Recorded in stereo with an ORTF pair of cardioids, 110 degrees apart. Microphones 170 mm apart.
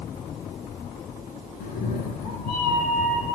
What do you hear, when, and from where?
1.6 s a cat meowing: 70° left, 4 m